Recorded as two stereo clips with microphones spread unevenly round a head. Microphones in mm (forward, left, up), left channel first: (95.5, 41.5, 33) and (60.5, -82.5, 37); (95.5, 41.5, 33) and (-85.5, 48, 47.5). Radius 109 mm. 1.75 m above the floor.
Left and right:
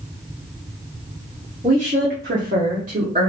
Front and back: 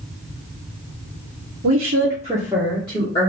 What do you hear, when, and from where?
1.6 s a woman speaking: 165° right, 1.1 m; by 3.3 s 70° right, 1.9 m